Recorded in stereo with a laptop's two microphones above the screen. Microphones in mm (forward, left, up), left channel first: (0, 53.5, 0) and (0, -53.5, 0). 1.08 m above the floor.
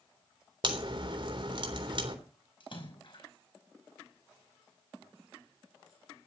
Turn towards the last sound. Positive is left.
turn(degrees=55)  # may be behind; listen again after turning